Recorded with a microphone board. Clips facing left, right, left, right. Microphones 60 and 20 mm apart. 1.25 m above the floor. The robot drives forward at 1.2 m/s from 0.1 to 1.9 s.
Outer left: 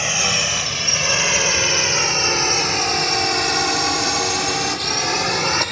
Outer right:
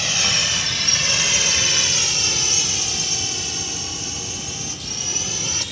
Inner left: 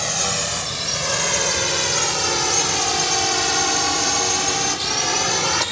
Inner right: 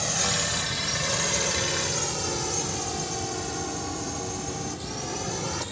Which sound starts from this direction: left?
A drone, at 0.0 s.